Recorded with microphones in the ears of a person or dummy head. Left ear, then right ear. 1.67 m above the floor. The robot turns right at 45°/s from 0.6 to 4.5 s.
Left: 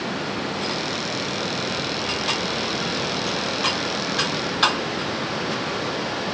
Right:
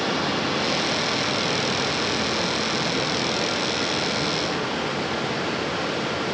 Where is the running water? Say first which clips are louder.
Right 3 dB; 55° right, 4.5 m; by 6.3 s 120° left, 4.5 m.